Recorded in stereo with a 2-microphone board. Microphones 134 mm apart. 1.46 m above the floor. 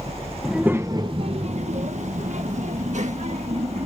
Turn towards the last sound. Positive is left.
turn(degrees=-60)  # may be behind; listen again after turning